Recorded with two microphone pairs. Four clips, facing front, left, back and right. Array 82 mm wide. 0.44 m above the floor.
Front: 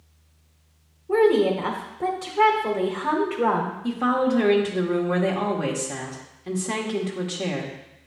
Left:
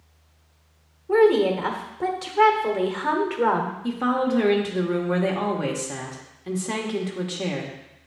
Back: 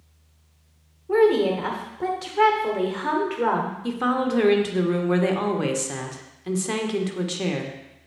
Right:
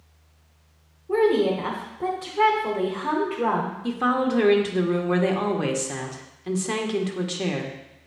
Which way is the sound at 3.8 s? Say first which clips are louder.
Right 1 dB, front 2 dB; 120° right.